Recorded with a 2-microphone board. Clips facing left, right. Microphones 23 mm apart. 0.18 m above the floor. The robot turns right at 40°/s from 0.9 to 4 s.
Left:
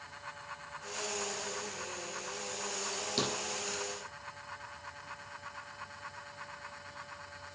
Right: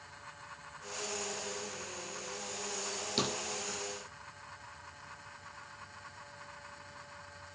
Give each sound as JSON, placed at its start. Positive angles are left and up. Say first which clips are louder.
{"t": 3.2, "sound": "a thud", "louder": "even", "side_deg": 0, "distance_m": 1.4}